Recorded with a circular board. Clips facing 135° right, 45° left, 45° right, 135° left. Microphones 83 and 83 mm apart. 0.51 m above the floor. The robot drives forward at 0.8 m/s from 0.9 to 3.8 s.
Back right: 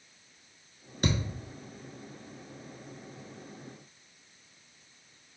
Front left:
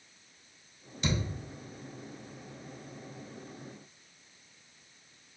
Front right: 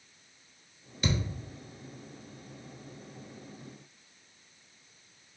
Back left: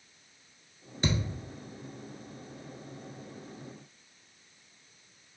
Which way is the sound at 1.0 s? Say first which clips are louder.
Back right 2 dB, back left 1 dB; 170° right.